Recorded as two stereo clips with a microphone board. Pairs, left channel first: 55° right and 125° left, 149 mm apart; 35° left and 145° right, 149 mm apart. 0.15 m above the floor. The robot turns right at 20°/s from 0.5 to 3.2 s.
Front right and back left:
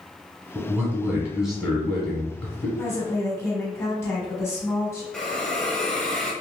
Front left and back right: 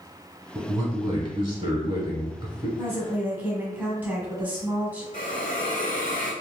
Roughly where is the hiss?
Ahead left.